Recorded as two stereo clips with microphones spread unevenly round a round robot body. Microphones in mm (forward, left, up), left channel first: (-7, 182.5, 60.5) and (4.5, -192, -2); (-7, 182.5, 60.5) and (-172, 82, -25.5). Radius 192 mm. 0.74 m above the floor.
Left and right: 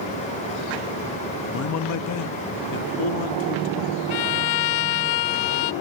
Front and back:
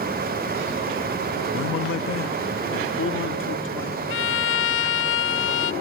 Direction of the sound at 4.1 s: 60° left.